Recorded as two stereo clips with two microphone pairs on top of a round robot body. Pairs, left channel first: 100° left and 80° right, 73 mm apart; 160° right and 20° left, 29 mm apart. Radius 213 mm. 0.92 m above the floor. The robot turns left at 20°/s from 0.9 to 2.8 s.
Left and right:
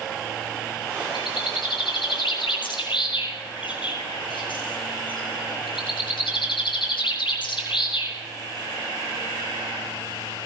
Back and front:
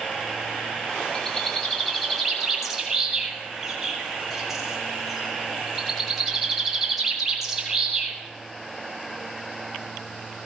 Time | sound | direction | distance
1.1 | a bird | 130° left | 7.5 m